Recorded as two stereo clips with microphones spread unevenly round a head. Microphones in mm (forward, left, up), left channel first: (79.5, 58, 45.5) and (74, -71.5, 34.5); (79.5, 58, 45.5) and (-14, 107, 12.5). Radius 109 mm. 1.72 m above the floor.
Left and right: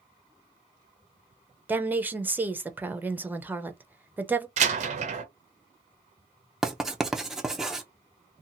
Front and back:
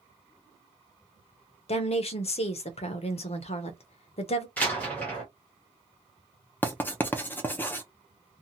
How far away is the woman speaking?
About 0.7 m.